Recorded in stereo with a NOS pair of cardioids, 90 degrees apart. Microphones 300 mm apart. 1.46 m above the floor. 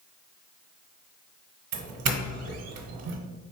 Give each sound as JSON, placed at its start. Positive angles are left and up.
{"t": 1.7, "sound": "a doorbell", "azimuth_deg": -60, "distance_m": 1.0}